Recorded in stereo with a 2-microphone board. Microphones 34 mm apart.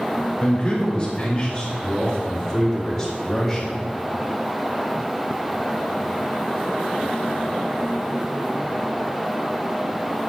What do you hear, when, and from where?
0.4 s a man speaking: 35° left (ahead or behind), 2.5 m; by 3.8 s centre (ahead or behind), 3.5 m